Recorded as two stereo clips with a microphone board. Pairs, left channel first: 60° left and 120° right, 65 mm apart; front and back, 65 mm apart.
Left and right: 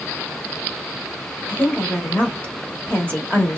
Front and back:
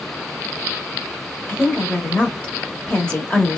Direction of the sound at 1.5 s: 45° left.